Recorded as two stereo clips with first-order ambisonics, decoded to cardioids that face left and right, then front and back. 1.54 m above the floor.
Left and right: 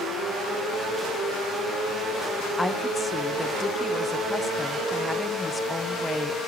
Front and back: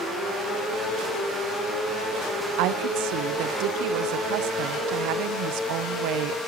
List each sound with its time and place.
2.6 s a woman speaking: 175° left, 0.6 m